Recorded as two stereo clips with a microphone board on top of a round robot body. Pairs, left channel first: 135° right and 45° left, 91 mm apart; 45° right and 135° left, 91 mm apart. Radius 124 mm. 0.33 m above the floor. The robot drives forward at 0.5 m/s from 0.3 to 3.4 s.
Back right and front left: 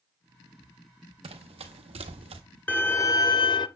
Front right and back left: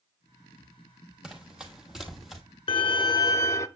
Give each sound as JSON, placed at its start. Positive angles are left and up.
{"t": 1.2, "sound": "running footsteps", "azimuth_deg": 55, "distance_m": 1.1}
{"t": 2.7, "sound": "a violin", "azimuth_deg": -60, "distance_m": 0.6}